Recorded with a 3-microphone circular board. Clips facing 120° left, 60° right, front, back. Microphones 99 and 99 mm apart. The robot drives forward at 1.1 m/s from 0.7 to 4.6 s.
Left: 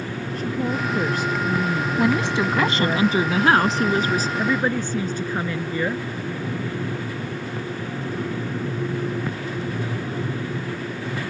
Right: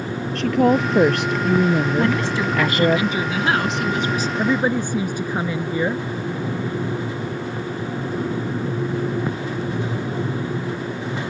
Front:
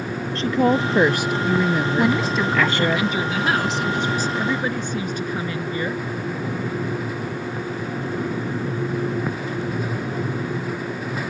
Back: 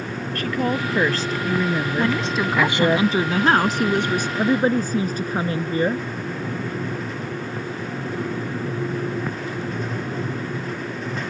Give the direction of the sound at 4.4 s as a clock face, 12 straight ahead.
4 o'clock.